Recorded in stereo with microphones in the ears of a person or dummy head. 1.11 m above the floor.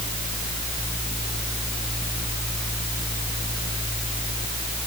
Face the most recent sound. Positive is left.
No sound to turn to.